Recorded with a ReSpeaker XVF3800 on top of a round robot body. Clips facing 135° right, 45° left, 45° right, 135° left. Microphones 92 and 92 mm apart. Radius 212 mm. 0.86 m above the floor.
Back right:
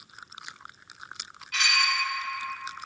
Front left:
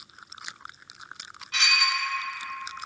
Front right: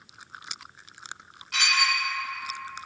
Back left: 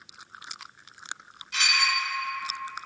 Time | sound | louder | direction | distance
1.5 | dishes clattering | even, front right 1 dB | 20° right | 1.5 m